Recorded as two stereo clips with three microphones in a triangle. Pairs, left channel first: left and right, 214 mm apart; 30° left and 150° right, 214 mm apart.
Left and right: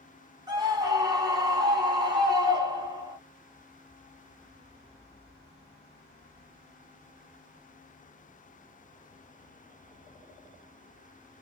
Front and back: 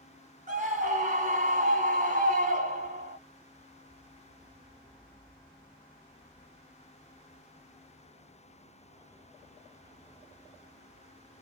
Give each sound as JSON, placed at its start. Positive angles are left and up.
{"t": 0.5, "sound": "a scream", "azimuth_deg": -145, "distance_m": 2.0}